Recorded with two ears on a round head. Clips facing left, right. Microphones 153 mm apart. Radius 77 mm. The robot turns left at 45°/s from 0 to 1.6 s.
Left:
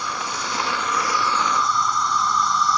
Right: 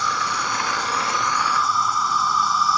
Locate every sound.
0.0 s an insect: 105° right; by 2.8 s 175° right